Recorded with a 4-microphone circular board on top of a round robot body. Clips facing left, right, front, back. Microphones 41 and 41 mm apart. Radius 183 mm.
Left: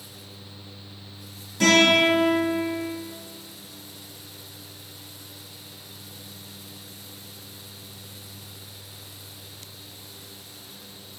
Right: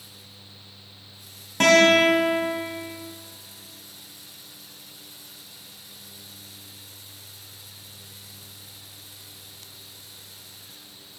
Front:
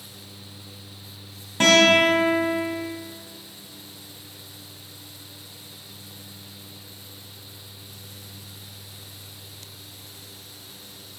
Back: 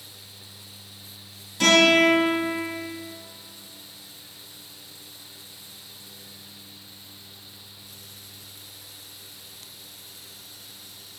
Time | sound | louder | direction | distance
1.6 | a guitar | right 2 dB, front 1 dB | 50° right | 2 m